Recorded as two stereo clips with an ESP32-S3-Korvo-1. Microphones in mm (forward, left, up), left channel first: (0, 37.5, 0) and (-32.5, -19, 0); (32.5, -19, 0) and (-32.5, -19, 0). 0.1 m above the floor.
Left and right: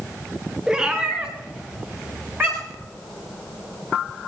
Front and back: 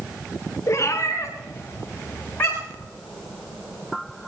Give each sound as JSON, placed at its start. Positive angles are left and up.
{"t": 0.7, "sound": "a cat meowing", "azimuth_deg": -45, "distance_m": 5.0}